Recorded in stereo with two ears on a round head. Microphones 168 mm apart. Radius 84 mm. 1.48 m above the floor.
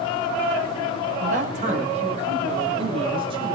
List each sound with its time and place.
1.2 s a man speaking: 40° right (ahead or behind), 8.5 m; by 3.6 s 25° right (ahead or behind), 9.5 m